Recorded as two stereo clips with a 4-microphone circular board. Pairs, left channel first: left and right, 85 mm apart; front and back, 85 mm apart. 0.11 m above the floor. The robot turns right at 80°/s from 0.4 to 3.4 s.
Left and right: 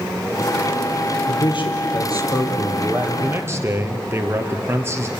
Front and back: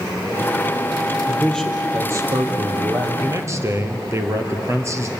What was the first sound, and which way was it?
A man speaking, 55° left.